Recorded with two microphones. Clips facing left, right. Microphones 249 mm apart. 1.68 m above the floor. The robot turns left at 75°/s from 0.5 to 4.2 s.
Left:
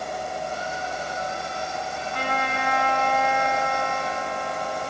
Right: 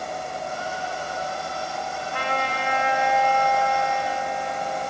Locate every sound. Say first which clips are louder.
2.1 s a trumpet: even; 105° right, 7.5 m; by 4.9 s 95° left, 7.5 m